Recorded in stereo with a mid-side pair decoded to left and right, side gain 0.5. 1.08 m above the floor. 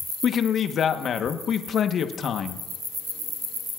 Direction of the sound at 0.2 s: 50° left.